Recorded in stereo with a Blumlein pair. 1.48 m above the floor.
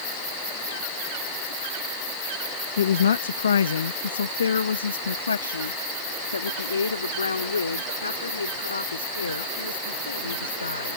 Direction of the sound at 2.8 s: 65° left.